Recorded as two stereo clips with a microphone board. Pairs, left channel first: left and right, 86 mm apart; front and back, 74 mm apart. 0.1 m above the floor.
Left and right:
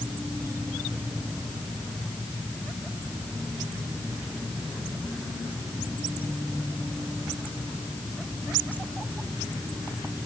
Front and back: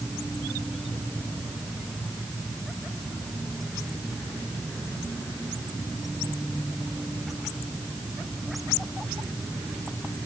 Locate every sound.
Only background noise.